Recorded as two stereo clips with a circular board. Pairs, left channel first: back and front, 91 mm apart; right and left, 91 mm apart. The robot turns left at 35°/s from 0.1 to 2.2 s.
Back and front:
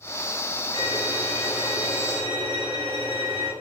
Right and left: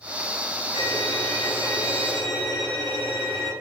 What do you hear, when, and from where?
0.7 s a violin: 45° left, 1.8 m; by 3.5 s 5° right, 1.8 m